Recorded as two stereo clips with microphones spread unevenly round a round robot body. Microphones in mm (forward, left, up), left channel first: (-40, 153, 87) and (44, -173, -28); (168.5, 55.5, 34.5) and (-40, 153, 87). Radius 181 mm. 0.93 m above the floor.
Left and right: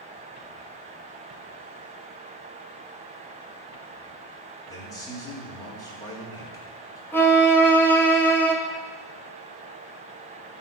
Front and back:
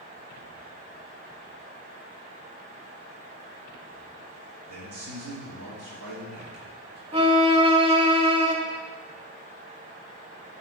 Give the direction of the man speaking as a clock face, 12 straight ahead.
6 o'clock.